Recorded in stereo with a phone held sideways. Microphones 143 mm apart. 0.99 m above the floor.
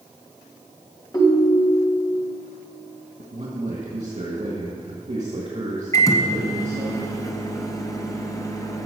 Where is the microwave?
25° left (ahead or behind), 0.9 m.